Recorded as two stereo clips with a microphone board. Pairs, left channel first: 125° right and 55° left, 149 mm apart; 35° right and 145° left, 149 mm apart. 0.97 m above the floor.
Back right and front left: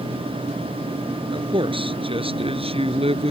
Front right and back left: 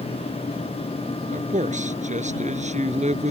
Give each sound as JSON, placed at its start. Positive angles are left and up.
{"t": 1.3, "sound": "a man speaking", "azimuth_deg": 110}